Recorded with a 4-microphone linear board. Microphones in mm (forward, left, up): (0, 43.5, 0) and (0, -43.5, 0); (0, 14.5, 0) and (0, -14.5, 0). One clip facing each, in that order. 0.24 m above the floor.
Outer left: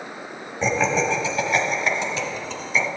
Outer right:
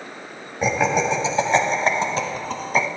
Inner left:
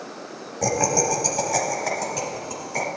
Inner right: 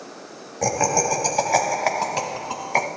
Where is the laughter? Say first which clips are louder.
Outer right 1 dB, inner right 1 dB; 10° right (ahead or behind), 1.3 m; by 2.9 s 50° right (ahead or behind), 1.7 m.